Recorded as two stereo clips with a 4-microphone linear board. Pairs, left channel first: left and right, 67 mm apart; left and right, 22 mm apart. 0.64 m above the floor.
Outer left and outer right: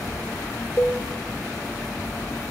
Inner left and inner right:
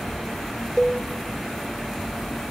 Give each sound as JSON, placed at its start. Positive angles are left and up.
{"t": 0.8, "sound": "a cowbell", "side_deg": 45, "distance_m": 0.9}